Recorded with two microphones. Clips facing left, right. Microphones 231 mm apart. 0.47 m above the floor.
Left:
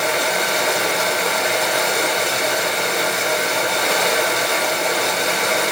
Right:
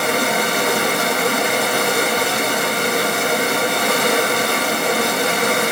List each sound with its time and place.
0.0 s running water: 55° right (ahead or behind), 1.3 m